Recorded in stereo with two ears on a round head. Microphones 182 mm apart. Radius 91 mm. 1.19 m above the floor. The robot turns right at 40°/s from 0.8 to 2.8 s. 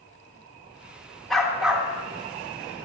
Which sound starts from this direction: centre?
A dog barking, at 1.3 s.